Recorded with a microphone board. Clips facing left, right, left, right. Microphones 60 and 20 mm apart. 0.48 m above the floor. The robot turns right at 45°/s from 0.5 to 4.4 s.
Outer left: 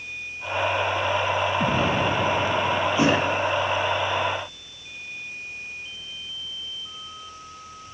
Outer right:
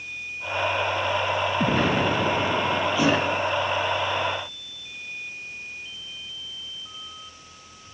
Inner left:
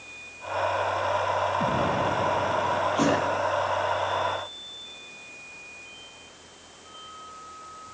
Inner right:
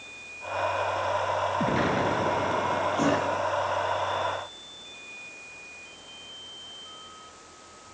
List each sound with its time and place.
1.6 s an explosion: 115° right, 2.5 m; by 3.4 s 35° right, 2.5 m
3.0 s a thud: 25° left (ahead or behind), 5.5 m; by 3.2 s 10° left (ahead or behind), 5.5 m